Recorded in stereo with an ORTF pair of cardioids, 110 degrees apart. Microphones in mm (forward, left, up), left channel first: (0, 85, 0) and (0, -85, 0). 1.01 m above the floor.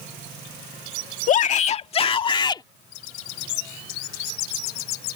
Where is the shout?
50° left; by 2.6 s 25° left.